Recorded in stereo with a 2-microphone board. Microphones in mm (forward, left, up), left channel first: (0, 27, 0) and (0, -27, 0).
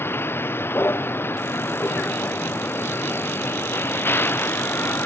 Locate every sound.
0.0 s a vehicle: 45° left (ahead or behind); by 5.1 s 40° left (ahead or behind)